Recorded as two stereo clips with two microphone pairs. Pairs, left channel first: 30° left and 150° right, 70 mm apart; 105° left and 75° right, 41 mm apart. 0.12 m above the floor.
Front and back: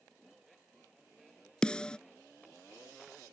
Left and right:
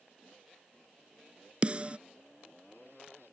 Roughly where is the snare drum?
Ahead right.